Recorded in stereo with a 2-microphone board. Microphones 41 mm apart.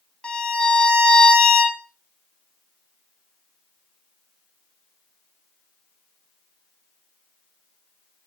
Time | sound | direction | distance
0.2 | a violin | 25° left (ahead or behind) | 0.5 m